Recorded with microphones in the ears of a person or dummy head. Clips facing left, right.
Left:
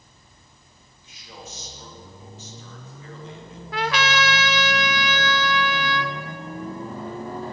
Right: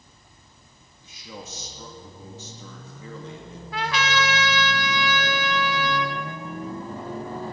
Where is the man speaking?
75° right (ahead or behind), 2.5 m.